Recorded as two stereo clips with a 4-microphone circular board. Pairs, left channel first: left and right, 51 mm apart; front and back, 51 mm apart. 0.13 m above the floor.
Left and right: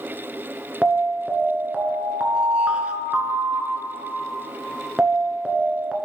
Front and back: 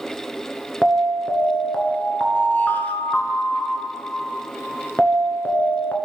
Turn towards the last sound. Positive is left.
turn(degrees=-30)